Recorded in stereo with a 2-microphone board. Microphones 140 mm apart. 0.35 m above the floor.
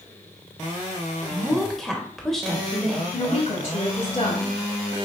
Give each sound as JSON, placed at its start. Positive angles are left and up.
{"t": 1.3, "sound": "a woman speaking", "side_deg": 0, "distance_m": 1.1}
{"t": 3.1, "sound": "a woman speaking", "side_deg": 55, "distance_m": 2.0}